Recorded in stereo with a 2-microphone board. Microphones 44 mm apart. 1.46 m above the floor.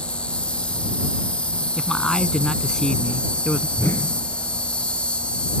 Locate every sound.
0.0 s an insect: 25° left (ahead or behind)
1.8 s a man speaking: 15° left (ahead or behind)
3.8 s a whoosh: 65° left (ahead or behind)